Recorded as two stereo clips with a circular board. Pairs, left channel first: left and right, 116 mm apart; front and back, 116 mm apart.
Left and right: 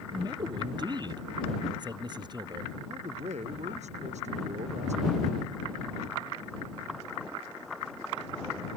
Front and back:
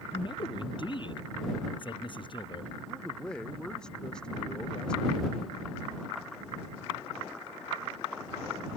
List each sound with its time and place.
0.1 s a man speaking: 40° right
2.9 s a man speaking: 80° right